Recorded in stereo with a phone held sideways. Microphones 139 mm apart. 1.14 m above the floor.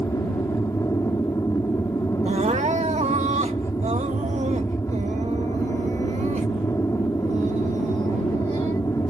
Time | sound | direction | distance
0.0 | an aircraft | 20° left (ahead or behind) | ?
2.2 | crying | 60° right (ahead or behind) | ?